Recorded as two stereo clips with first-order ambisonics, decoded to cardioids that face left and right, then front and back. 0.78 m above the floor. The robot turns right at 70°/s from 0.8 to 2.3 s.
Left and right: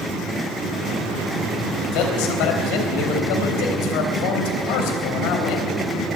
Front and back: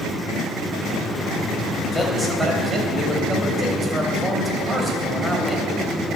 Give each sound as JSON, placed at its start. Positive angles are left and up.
{"t": 1.9, "sound": "a man speaking", "azimuth_deg": 75, "distance_m": 3.0}